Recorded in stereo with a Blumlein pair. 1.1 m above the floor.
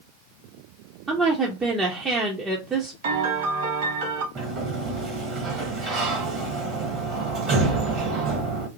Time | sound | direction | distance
1.1 | a woman speaking | 15° right | 0.8 m
3.0 | a piano | 55° right | 1.6 m
4.3 | a sliding door | 30° right | 1.2 m